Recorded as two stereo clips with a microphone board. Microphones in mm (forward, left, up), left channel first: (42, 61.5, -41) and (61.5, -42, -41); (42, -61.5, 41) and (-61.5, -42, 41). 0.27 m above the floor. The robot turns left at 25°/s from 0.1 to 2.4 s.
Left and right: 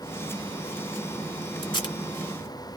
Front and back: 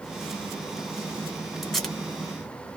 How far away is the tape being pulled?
About 1.8 m.